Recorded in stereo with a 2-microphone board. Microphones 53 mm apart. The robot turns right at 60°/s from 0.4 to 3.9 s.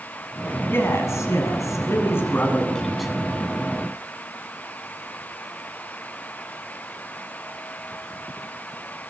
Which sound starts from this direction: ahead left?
A man speaking, at 0.7 s.